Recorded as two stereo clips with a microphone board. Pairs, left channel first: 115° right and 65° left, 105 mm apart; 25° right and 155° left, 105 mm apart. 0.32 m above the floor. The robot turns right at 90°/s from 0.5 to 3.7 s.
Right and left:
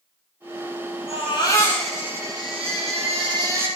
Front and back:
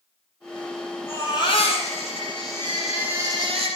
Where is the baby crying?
90° right, 5.5 m; by 3.7 s 140° left, 5.5 m.